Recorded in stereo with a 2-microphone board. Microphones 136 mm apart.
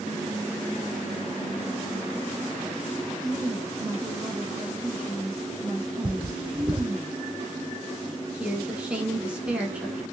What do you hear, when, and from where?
3.2 s a woman speaking: 20° right (ahead or behind), 1.7 m
6.0 s cutlery clinking: 40° right (ahead or behind), 1.0 m
8.3 s a woman speaking: 10° right (ahead or behind), 1.0 m